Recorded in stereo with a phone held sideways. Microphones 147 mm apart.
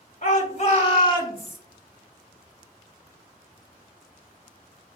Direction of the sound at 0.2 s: 55° left (ahead or behind).